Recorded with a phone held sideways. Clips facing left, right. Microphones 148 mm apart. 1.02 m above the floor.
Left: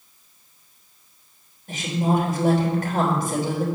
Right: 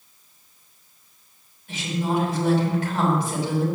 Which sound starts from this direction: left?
A woman speaking, at 1.7 s.